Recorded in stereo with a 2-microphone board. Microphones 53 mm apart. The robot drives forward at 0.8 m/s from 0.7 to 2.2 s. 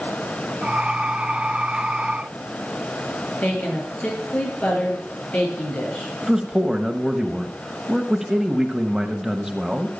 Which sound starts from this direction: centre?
A man speaking, at 6.2 s.